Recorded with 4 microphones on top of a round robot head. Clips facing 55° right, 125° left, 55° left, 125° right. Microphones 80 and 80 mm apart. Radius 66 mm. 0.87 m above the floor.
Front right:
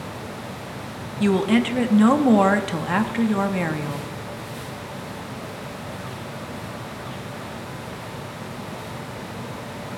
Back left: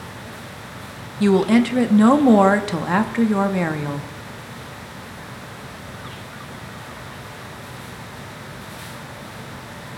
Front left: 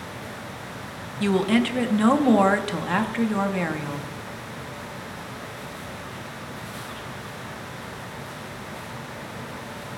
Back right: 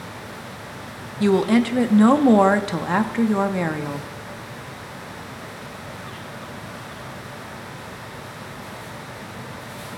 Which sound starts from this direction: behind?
A woman speaking, at 1.2 s.